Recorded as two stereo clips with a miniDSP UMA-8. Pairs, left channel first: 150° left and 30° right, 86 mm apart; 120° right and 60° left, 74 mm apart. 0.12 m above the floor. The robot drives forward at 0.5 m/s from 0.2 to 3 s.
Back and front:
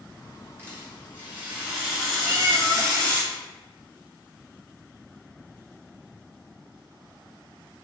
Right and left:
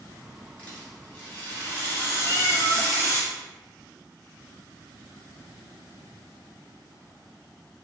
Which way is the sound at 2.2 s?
75° right.